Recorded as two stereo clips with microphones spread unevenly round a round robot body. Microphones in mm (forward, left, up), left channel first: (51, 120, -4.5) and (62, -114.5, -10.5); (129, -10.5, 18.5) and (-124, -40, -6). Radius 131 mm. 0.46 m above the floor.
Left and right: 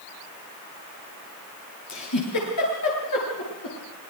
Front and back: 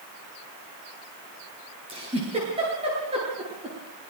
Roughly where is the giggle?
Behind left.